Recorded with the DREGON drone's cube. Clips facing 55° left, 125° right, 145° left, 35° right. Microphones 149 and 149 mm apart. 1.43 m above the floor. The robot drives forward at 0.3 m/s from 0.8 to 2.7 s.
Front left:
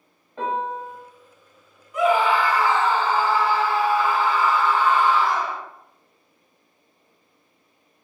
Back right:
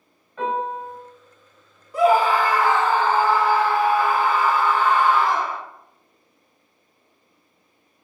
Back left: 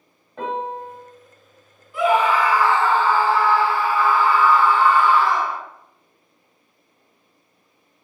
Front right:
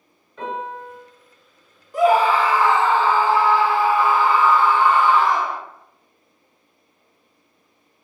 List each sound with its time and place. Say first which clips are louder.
0.4 s a piano: back right 1 dB, back left 2 dB; 115° left, 1.6 m
1.9 s a scream: back right 2 dB, front right 2 dB; 75° right, 0.6 m; by 5.6 s 100° right, 0.6 m